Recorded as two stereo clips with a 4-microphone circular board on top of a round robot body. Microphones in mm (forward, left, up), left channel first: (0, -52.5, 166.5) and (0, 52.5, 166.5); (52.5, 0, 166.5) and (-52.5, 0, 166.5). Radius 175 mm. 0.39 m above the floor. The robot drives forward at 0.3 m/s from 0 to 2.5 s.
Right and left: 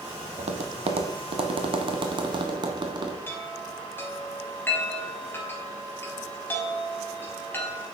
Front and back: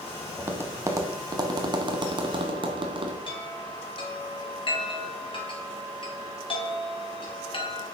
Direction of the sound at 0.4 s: 110° left.